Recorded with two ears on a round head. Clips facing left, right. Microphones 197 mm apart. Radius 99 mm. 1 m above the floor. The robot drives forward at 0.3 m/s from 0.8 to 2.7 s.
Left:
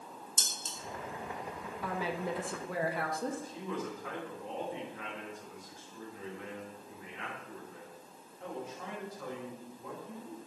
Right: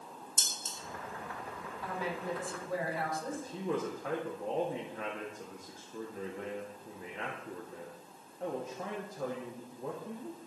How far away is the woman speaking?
About 1.4 m.